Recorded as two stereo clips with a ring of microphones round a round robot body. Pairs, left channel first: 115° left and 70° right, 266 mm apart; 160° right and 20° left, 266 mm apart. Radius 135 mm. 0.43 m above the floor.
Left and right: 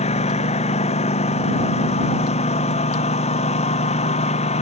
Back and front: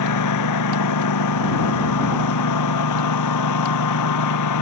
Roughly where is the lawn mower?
Behind.